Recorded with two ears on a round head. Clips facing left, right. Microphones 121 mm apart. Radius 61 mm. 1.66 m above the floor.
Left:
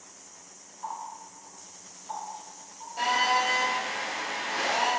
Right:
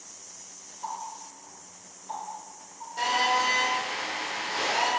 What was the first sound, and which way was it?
A running tap, 10° right (ahead or behind).